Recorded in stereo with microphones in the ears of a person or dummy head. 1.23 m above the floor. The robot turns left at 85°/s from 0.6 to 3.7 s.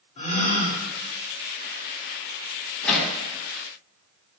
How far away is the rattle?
No rattle in this recording.